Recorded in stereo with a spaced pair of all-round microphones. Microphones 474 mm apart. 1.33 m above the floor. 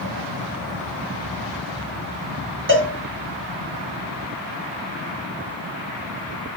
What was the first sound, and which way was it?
A cowbell, 25° right (ahead or behind).